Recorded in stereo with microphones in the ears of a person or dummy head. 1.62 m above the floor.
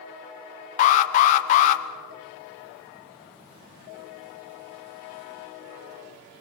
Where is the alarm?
40° left (ahead or behind), 1.9 m.